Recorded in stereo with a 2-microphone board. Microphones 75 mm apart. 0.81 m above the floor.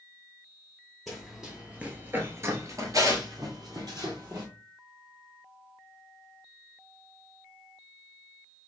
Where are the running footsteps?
Centre (ahead or behind), 1.2 m; by 4.5 s 60° right (ahead or behind), 1.7 m.